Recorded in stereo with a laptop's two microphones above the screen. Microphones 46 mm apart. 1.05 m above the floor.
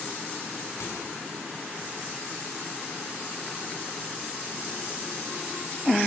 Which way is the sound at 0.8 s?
90° left.